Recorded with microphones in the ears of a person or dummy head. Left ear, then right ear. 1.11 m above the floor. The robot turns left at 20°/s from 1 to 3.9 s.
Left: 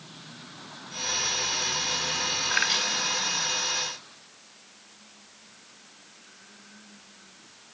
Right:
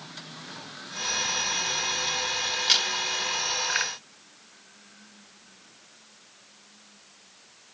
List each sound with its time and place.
2.5 s a crack: 50° right (ahead or behind), 1.8 m; by 2.9 s 60° right (ahead or behind), 1.8 m